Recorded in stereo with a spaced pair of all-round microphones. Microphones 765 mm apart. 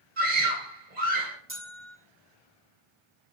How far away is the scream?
About 3 m.